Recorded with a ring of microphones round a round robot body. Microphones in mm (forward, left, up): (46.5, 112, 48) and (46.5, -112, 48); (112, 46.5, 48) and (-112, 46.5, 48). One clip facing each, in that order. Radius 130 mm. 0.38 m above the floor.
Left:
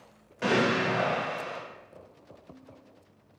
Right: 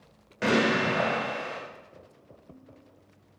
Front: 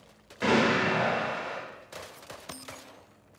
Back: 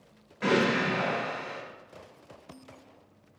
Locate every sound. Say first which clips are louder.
0.4 s an explosion: right 1 dB, front 1 dB; 30° right, 1.6 m